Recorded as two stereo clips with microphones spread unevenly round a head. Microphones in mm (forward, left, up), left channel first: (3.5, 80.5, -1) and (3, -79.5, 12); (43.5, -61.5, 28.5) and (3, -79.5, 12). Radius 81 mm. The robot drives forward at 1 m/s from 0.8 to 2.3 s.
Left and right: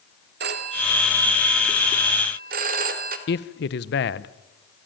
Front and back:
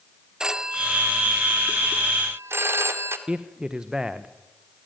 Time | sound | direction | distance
0.4 | a phone ringing | 75° right | 1.8 m
3.3 | a man speaking | 120° left | 0.9 m